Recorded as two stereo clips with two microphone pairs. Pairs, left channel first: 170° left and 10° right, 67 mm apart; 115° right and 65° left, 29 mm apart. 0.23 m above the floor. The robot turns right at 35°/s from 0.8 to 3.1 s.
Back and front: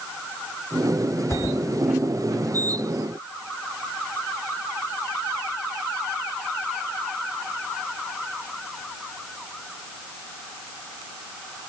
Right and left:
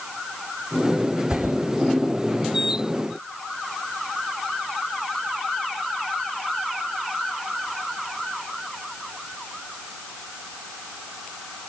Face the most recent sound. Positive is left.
turn(degrees=180)